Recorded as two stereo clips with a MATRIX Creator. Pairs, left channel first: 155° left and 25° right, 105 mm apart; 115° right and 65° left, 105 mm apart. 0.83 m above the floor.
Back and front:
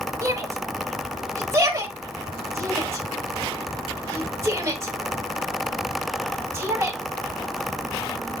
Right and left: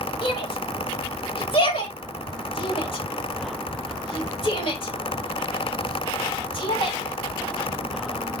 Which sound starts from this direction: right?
A shout, at 0.2 s.